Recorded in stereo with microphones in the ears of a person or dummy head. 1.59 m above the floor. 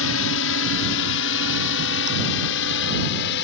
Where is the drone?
70° left (ahead or behind); by 3.4 s 60° left (ahead or behind).